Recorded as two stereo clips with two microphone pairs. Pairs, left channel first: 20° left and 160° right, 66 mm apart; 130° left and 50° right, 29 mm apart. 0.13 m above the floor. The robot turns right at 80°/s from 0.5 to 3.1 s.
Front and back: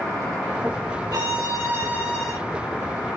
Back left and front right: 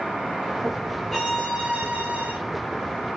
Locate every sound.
1.1 s a violin: 155° right, 3 m; by 2.3 s 55° right, 3 m